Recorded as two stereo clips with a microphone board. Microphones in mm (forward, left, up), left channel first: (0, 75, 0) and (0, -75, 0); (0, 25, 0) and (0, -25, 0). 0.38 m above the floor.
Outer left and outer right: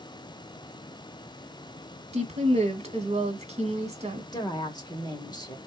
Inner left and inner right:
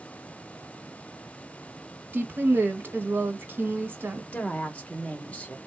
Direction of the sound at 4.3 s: 30° left (ahead or behind).